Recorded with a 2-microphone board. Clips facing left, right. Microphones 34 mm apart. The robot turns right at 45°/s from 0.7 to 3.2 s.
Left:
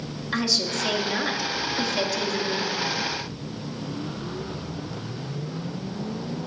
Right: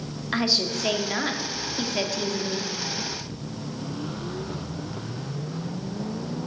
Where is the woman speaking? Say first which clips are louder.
Right 1 dB; 20° right (ahead or behind), 0.9 m; by 2.7 s centre (ahead or behind), 0.9 m.